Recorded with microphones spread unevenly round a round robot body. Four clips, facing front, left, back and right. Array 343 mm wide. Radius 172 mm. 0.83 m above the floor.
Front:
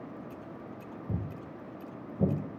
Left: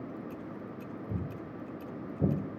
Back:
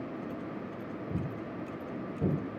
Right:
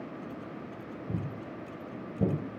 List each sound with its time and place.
1.1 s footsteps: 5° right, 1.2 m; by 2.3 s 60° right, 1.8 m